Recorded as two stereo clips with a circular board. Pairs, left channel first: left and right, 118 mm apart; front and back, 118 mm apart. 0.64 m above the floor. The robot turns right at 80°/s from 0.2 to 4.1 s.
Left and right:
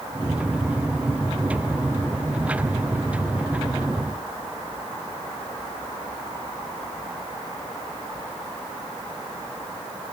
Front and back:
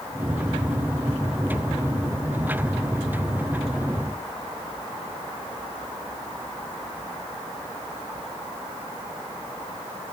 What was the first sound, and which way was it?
Only background noise.